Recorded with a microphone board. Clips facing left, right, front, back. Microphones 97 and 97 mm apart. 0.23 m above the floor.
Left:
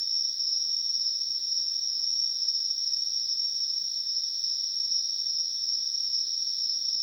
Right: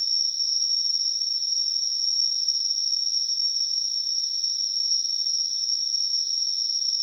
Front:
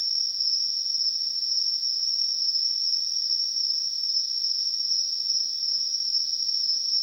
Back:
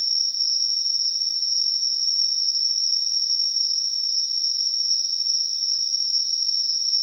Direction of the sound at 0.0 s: 25° right.